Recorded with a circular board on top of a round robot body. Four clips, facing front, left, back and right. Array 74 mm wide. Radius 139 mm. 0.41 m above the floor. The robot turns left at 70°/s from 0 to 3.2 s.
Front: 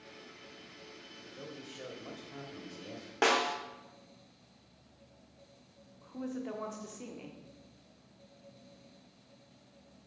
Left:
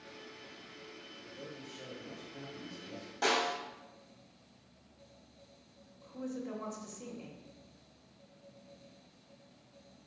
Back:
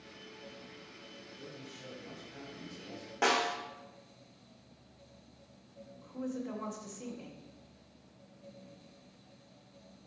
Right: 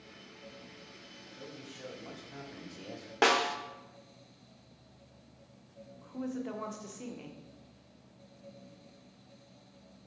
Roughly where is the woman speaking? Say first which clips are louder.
Right 3 dB, back 1 dB; ahead right.